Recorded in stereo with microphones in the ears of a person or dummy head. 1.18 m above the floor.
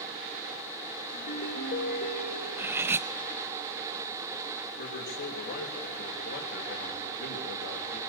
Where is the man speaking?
50° left (ahead or behind), 4.5 m.